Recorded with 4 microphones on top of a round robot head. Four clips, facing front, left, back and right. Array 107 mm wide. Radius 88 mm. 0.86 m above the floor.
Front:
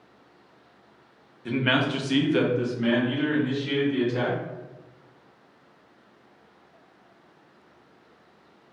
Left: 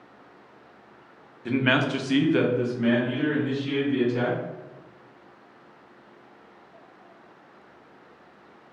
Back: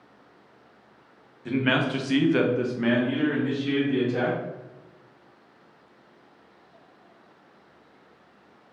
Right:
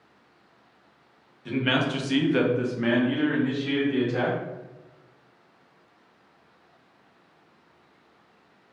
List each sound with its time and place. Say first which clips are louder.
1.4 s a man speaking: left 2 dB, even; 80° left, 0.7 m; by 4.4 s 125° right, 1.3 m